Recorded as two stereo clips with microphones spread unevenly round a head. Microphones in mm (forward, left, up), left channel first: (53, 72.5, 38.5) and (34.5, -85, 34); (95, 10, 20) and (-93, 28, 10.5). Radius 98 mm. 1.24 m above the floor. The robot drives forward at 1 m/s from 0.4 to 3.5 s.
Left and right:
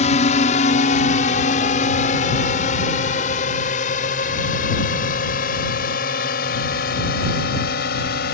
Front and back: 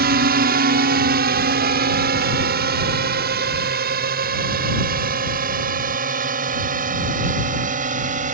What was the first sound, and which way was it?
A drone, 140° left.